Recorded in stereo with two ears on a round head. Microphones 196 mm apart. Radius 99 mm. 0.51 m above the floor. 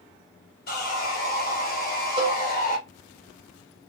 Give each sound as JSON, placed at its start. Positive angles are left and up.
{"t": 0.7, "sound": "sawing", "side_deg": 45, "distance_m": 2.0}
{"t": 2.2, "sound": "a cowbell", "side_deg": -25, "distance_m": 1.7}